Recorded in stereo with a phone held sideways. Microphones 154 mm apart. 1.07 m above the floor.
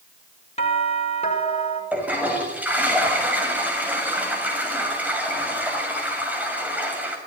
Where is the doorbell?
40° left (ahead or behind), 5 m.